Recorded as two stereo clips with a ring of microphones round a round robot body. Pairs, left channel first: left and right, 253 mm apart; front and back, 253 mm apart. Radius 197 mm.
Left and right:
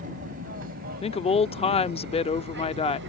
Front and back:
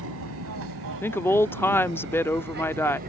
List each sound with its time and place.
0.0 s an aircraft: 150° right; by 3.1 s 125° right
1.0 s a woman speaking: 70° left